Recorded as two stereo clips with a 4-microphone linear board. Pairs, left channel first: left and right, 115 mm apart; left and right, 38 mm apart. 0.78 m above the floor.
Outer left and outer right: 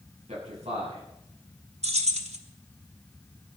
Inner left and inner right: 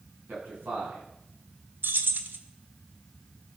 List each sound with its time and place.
0.3 s a man speaking: 85° right, 9 m
1.8 s keys jangling: 85° right, 1.5 m